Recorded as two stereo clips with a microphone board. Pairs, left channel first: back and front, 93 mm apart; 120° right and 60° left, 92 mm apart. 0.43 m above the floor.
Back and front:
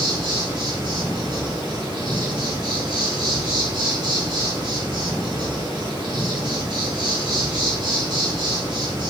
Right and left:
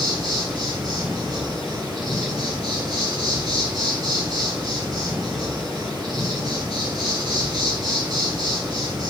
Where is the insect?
25° left, 1.8 m.